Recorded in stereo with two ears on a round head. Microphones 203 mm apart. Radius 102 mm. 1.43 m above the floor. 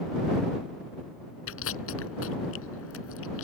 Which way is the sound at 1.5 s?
65° left (ahead or behind).